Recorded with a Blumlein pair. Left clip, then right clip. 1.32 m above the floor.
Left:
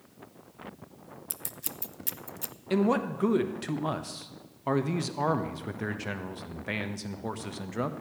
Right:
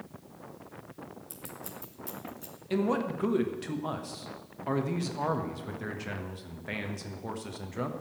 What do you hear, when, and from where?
1.3 s scissors: 30° left, 0.7 m
2.7 s a man speaking: 15° left, 1.3 m